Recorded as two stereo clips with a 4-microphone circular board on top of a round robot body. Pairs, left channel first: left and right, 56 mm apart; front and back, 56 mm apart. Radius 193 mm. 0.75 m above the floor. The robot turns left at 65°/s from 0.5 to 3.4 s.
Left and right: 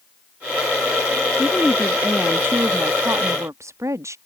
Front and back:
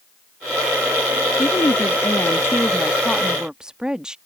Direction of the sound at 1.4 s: 25° left.